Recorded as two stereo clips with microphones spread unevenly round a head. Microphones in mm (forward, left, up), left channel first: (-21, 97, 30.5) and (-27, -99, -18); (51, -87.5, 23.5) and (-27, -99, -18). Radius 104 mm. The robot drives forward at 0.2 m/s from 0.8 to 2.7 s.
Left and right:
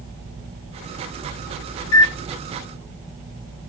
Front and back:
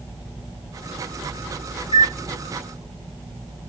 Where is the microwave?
70° left, 0.6 m; by 2.2 s 80° left, 0.6 m.